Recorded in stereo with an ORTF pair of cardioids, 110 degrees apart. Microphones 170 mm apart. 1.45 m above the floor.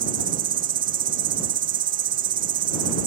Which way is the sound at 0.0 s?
55° right.